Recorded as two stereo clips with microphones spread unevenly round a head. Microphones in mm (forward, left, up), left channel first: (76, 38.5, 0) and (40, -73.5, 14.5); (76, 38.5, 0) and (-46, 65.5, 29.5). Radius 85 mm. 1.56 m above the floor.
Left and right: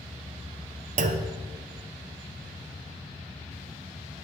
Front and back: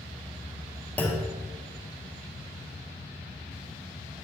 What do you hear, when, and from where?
1.0 s a clunk: 95° right, 0.9 m